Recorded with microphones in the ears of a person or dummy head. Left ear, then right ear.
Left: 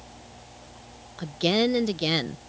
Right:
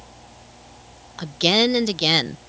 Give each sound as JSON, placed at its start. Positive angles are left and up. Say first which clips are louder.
{"t": 1.2, "sound": "a woman speaking", "louder": "right 6 dB", "side_deg": -25}